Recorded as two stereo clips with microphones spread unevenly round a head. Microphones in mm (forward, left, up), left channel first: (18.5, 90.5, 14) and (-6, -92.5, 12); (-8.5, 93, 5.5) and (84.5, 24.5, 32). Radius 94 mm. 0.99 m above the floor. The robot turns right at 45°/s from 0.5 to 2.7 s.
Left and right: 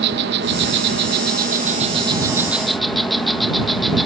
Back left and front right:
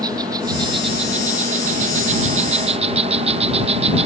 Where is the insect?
105° right; by 4.1 s 10° right.